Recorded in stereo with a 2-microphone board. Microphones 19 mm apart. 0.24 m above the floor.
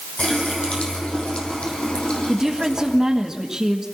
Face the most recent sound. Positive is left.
turn(degrees=-25)  # may be behind; listen again after turning